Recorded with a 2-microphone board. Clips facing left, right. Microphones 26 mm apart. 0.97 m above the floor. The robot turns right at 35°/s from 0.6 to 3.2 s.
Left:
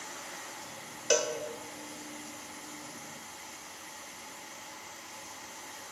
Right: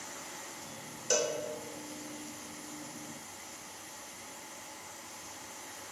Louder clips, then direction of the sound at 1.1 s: Left 3 dB; 40° left (ahead or behind).